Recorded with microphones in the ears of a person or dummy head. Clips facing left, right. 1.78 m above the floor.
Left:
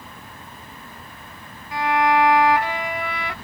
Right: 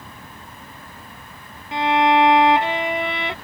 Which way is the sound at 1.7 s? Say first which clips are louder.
Right 2 dB; 20° right (ahead or behind).